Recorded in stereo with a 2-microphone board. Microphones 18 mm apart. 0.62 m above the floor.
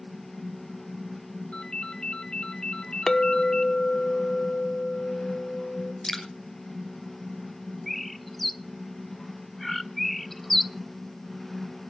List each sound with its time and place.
1.5 s a ringtone: 60° left (ahead or behind), 1.8 m
3.1 s a clink: 35° left (ahead or behind), 0.7 m
6.0 s dripping: 15° left (ahead or behind), 2.5 m
7.9 s a bird: 5° left (ahead or behind), 0.7 m